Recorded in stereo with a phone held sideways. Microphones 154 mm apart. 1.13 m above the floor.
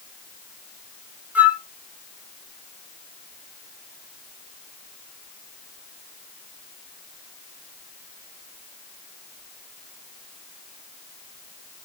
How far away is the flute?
About 0.6 m.